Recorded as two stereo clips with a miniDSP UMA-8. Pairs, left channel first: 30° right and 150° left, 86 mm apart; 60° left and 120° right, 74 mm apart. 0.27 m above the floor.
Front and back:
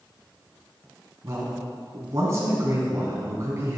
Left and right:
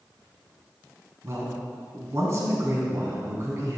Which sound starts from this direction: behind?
A man speaking, at 1.2 s.